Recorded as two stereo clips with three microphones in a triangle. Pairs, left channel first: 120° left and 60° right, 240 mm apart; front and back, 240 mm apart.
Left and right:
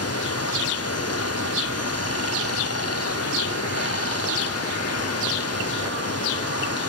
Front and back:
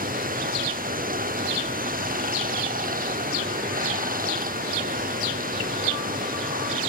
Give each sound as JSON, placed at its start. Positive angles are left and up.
{"t": 0.0, "sound": "running water", "azimuth_deg": 125}